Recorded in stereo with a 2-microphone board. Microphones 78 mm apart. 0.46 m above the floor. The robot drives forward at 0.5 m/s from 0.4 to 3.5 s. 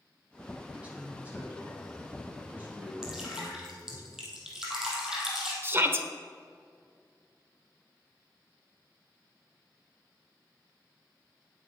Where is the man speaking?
20° right (ahead or behind), 4.5 m; by 4.0 s 25° right (ahead or behind), 3.5 m.